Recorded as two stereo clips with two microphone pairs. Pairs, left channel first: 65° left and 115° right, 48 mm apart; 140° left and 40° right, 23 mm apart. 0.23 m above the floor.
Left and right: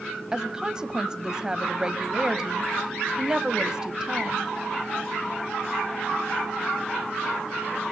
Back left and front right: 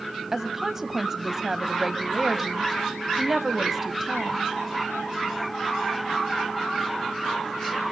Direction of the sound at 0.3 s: 85° right.